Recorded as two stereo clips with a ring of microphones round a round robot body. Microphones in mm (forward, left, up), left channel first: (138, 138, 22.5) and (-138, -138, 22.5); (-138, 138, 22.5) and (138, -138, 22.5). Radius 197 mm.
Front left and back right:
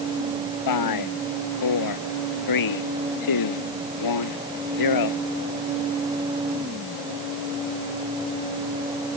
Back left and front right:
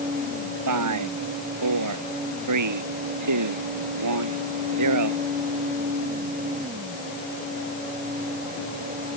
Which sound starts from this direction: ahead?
A man speaking, at 0.7 s.